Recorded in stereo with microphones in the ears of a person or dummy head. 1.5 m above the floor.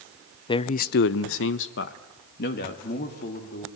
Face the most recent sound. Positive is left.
turn(degrees=50)  # may be behind; listen again after turning